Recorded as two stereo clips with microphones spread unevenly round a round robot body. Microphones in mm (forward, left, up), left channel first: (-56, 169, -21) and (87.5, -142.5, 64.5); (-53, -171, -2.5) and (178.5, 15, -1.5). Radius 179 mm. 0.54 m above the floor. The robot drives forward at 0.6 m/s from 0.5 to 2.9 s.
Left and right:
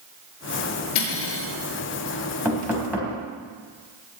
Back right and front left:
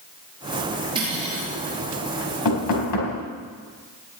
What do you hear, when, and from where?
0.9 s cutlery clinking: 115° left, 6 m; by 1.5 s 120° left, 6 m
2.5 s knocking: 150° right, 3.5 m; by 3.2 s 155° right, 4 m